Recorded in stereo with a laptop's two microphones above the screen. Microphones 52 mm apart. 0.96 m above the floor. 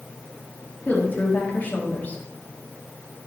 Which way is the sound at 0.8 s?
35° left (ahead or behind).